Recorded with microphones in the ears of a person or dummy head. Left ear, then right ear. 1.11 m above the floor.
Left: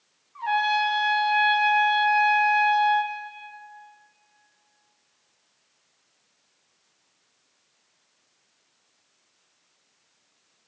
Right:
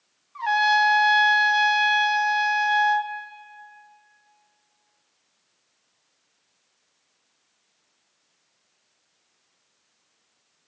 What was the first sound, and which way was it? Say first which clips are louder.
A trumpet: right 4 dB; 50° right (ahead or behind).